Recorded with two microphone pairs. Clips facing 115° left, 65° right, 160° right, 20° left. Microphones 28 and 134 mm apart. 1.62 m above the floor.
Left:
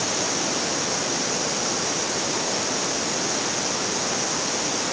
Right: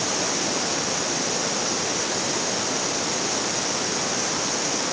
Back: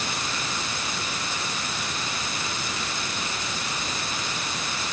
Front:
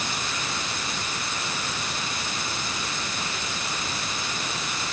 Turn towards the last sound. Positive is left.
No sound to turn to.